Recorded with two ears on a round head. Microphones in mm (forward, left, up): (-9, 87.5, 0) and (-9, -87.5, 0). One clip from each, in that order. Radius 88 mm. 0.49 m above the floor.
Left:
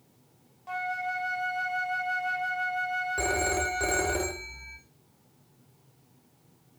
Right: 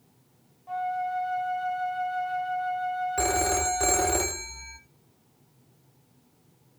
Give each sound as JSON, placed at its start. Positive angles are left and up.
{"t": 0.7, "sound": "a flute", "side_deg": 55, "distance_m": 1.1}
{"t": 3.2, "sound": "a phone ringing", "side_deg": -25, "distance_m": 0.6}